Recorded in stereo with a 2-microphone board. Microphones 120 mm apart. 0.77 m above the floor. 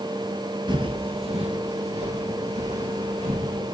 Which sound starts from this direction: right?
Footsteps, at 0.7 s.